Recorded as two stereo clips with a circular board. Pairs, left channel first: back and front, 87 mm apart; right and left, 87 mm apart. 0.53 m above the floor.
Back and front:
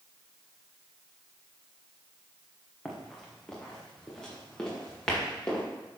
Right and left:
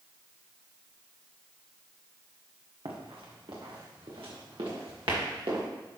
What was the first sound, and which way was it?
Running footsteps, 95° left.